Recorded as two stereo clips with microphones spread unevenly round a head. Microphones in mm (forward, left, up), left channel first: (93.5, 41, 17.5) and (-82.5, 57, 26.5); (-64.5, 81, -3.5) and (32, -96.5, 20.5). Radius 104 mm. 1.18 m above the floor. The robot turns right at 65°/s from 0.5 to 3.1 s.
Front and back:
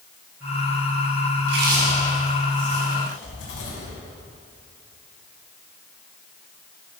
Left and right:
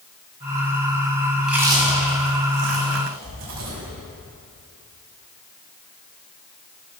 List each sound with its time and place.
1.4 s chewing: 155° right, 6 m; by 3.9 s 45° right, 6 m